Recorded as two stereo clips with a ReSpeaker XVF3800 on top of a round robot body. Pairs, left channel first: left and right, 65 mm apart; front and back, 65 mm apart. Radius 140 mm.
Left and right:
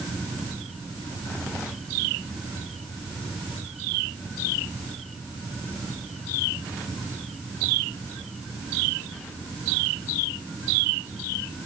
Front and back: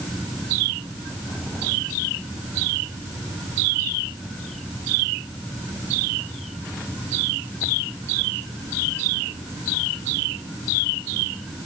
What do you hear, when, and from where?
Only background noise.